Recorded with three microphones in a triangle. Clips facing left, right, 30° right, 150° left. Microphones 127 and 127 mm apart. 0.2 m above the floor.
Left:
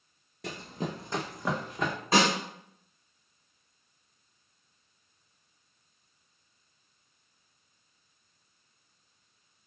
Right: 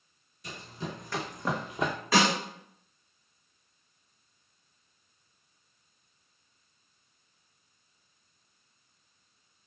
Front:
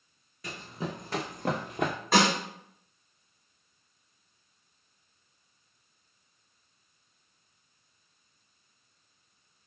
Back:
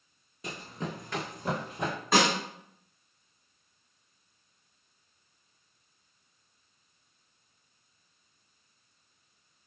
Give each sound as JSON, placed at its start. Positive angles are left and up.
{"t": 0.4, "sound": "running footsteps", "azimuth_deg": 85, "distance_m": 0.6}
{"t": 2.1, "sound": "a snare drum", "azimuth_deg": 55, "distance_m": 1.6}